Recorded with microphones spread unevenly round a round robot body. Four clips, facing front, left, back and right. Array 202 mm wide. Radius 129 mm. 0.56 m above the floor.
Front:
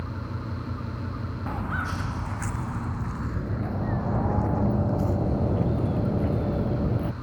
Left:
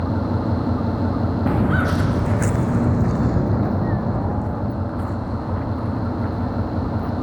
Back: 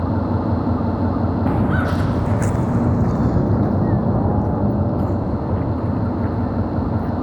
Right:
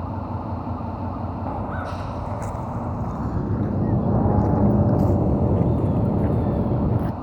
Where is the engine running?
160° left.